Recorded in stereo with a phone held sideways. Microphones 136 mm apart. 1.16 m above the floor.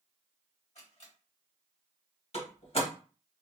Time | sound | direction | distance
0.8 | a camera shutter | 55° left (ahead or behind) | 1.8 m
2.3 | a door slam | 50° left (ahead or behind) | 1.5 m